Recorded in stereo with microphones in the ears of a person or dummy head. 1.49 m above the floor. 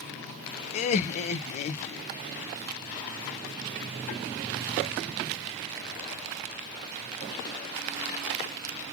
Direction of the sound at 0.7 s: 45° left (ahead or behind).